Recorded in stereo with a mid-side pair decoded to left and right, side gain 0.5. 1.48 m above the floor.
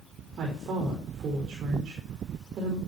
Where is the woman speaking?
55° right, 5 m.